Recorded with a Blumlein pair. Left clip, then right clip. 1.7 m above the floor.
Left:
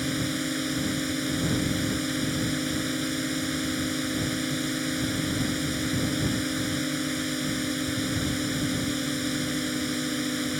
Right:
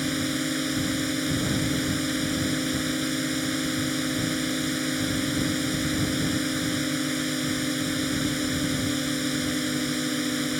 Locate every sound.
0.0 s a drone: 5° right